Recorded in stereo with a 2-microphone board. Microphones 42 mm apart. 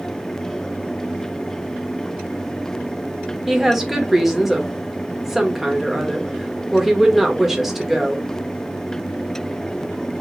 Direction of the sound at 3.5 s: 5° right (ahead or behind).